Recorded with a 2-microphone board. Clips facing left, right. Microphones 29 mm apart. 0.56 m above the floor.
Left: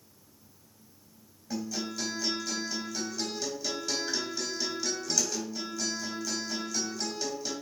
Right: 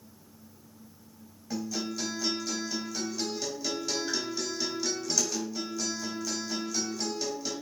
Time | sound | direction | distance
1.5 | a guitar | 10° right (ahead or behind) | 3 m